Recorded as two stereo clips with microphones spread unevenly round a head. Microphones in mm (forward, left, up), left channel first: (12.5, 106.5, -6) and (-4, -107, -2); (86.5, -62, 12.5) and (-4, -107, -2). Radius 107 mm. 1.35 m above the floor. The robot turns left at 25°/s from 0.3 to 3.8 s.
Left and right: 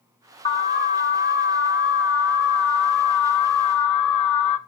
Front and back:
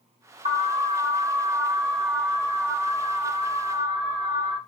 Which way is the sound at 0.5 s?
155° left.